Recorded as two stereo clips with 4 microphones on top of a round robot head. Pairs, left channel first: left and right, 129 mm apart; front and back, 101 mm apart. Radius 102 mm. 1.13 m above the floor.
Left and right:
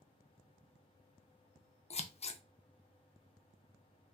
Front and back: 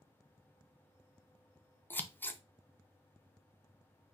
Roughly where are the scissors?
Left.